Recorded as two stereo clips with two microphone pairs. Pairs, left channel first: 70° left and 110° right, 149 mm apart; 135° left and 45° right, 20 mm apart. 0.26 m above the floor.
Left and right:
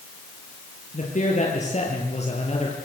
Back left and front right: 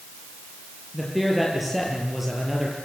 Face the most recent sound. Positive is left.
turn(degrees=30)